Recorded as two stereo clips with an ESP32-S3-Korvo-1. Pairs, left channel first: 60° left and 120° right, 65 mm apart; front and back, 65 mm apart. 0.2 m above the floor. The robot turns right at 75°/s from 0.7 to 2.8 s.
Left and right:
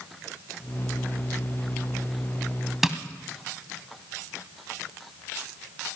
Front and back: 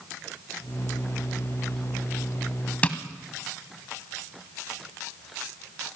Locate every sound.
2.8 s tapping: 40° right, 0.7 m